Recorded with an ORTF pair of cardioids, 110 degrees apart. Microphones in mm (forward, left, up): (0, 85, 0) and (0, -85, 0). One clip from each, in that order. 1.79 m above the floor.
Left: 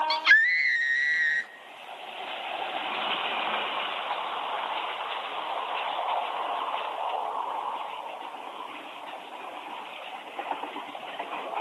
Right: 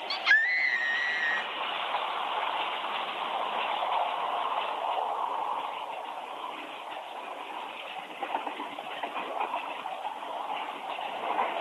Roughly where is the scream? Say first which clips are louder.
Left 3 dB; ahead left.